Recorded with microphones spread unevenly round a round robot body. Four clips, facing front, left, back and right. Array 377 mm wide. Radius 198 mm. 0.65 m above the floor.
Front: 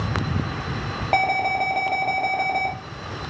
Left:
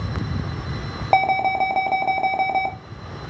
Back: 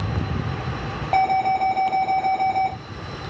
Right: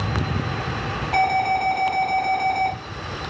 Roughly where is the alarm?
Left.